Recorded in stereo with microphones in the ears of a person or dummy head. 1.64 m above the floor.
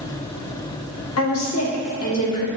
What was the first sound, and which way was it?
A woman speaking, 85° left.